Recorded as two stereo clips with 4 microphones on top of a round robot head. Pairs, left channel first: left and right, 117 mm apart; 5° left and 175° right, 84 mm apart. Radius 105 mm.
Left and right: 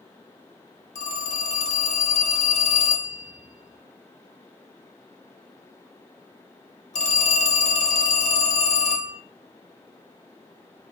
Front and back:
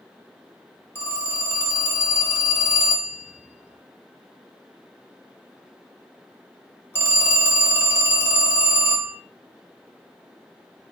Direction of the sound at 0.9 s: 70° left.